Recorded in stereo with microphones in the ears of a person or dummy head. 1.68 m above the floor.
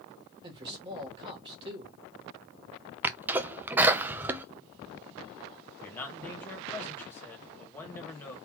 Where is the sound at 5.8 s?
10° left (ahead or behind), 1.9 m.